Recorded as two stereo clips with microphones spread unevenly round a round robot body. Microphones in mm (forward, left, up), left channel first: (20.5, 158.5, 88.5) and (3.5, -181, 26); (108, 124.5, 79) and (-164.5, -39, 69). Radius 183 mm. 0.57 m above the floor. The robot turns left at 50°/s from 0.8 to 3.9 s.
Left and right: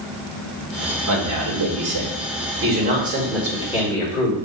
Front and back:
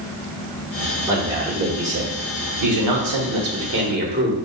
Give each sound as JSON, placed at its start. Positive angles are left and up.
{"t": 1.1, "sound": "a man speaking", "azimuth_deg": -65, "distance_m": 1.4}